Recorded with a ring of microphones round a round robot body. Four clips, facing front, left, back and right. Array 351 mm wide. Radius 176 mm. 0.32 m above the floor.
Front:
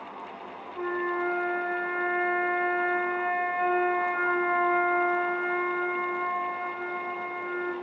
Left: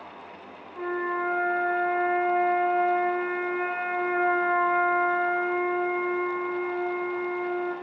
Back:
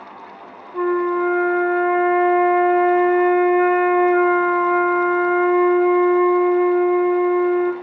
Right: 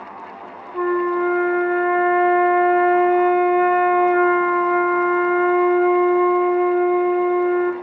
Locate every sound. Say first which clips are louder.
0.7 s a flute: right 9 dB, back 11 dB; 135° right, 0.7 m